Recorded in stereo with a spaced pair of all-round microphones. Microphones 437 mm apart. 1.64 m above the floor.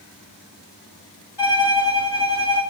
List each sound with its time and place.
1.4 s a violin: 65° left (ahead or behind), 5 m